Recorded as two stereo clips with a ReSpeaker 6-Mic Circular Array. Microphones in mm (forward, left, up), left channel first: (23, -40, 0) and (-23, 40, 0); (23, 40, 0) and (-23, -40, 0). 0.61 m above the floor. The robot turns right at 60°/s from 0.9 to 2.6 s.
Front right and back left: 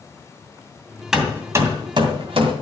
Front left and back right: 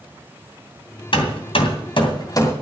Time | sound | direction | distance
1.1 | hammering | 35° left | 2.5 m